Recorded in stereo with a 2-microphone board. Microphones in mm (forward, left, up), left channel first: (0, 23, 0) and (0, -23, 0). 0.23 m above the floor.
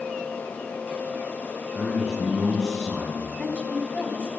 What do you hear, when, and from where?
1.8 s a man speaking: 20° right (ahead or behind), 2.5 m; by 3.3 s 5° left (ahead or behind), 2.5 m
3.4 s a woman speaking: 25° left (ahead or behind), 2.0 m